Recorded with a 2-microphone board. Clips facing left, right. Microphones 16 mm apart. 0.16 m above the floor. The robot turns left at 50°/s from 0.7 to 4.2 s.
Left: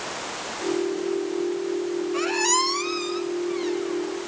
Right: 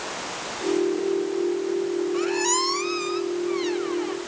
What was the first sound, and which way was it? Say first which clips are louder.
A squeak: left 4 dB; 35° left.